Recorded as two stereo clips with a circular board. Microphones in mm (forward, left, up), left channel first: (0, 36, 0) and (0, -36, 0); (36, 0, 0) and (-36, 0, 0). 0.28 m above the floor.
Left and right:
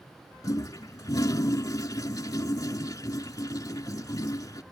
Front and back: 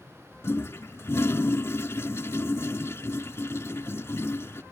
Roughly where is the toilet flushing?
Ahead left.